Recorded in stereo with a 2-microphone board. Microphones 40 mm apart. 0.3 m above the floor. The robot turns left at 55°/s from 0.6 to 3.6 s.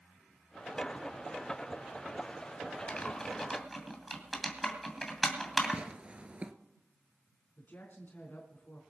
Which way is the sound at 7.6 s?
50° left (ahead or behind).